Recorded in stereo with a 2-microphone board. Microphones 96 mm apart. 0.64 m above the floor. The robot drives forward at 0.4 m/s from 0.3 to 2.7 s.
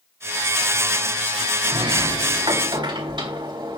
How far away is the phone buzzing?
No phone buzzing in this recording.